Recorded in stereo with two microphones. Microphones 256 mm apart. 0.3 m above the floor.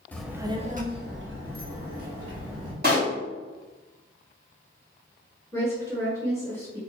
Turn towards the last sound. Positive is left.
turn(degrees=10)  # may be behind; listen again after turning